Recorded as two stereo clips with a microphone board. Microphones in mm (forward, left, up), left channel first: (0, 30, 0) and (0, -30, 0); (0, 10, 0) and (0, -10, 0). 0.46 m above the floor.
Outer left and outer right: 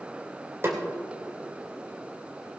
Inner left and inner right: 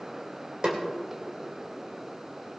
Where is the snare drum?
45° right (ahead or behind), 2 m.